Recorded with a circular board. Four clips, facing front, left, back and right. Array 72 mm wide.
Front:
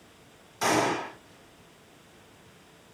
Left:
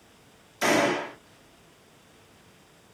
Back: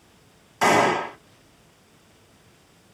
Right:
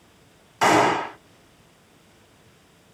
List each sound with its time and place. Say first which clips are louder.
0.6 s a gunshot: right 6 dB, back 7 dB; 120° right, 1.4 m